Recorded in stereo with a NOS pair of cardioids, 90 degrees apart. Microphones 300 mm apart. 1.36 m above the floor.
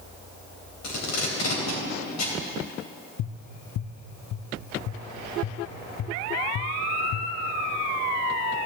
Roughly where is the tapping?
Ahead left.